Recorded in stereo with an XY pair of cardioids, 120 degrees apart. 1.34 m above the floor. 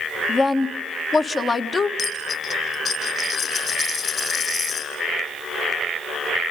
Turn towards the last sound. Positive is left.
turn(degrees=40)